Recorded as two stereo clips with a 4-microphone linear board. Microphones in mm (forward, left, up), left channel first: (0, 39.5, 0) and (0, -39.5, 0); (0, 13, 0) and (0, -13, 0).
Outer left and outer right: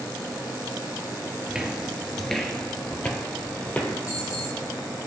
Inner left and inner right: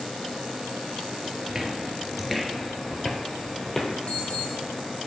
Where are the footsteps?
10° right (ahead or behind), 0.8 m; by 3.9 s 20° left (ahead or behind), 1.3 m.